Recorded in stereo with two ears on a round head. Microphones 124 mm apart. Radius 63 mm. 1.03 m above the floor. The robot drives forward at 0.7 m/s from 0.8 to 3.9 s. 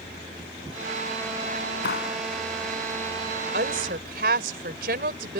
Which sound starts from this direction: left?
A clap, at 1.8 s.